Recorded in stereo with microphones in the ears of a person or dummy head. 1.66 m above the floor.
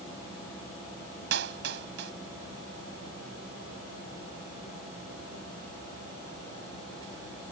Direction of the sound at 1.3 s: 65° right (ahead or behind).